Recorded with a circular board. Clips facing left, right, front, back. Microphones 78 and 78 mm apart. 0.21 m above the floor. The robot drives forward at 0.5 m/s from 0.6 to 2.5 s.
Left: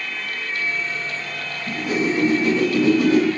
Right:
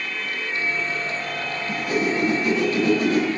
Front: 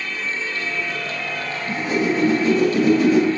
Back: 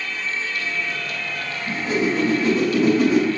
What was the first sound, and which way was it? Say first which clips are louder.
A whoosh: left 2 dB, front 1 dB; 140° left.